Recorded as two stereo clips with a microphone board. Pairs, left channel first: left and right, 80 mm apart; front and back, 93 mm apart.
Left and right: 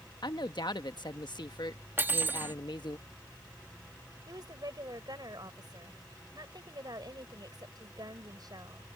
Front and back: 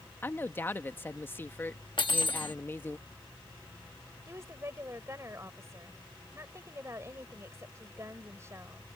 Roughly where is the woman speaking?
Behind right.